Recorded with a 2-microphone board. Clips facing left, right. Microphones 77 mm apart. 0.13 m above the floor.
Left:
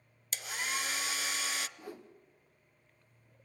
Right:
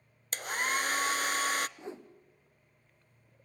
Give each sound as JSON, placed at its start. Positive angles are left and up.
{"t": 0.3, "sound": "a hair dryer", "side_deg": -50, "distance_m": 0.6}
{"t": 1.8, "sound": "a whoosh", "side_deg": -25, "distance_m": 2.0}